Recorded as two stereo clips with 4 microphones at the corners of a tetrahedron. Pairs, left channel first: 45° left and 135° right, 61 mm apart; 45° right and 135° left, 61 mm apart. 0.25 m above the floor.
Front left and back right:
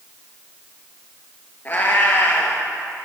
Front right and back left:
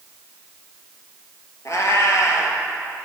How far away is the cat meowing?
About 0.9 m.